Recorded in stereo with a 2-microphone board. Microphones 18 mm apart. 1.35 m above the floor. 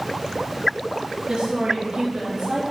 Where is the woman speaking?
50° right (ahead or behind), 3 m.